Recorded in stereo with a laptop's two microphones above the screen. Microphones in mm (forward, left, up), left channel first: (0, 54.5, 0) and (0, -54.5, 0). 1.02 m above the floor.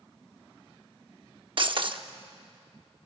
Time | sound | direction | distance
1.6 | breaking glass | 50° right (ahead or behind) | 0.8 m